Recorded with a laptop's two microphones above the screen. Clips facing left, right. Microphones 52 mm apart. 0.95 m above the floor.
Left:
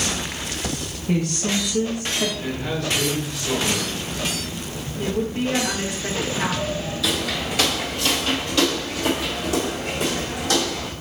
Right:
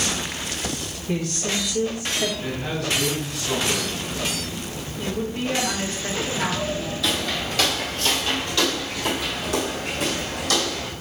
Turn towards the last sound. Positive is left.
turn(degrees=25)  # may be behind; listen again after turning